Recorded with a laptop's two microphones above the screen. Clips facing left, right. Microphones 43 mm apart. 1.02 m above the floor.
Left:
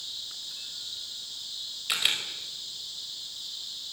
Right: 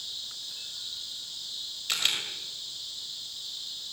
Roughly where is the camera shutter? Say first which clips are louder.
Left 1 dB; centre.